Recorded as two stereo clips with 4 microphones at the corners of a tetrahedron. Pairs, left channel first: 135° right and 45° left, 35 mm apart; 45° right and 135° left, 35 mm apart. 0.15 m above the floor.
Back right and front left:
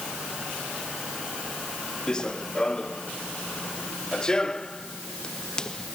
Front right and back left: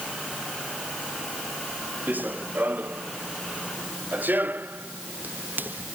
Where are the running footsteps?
160° left; by 5.9 s 155° left.